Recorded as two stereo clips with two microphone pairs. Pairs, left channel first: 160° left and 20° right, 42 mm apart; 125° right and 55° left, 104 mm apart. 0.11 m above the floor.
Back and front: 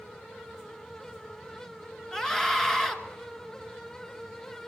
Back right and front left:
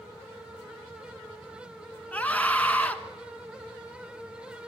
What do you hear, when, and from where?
2.1 s a scream: 155° right, 1.1 m